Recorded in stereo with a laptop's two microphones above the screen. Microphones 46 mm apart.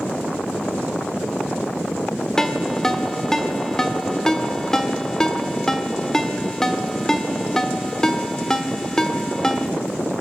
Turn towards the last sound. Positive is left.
turn(degrees=10)  # may be behind; listen again after turning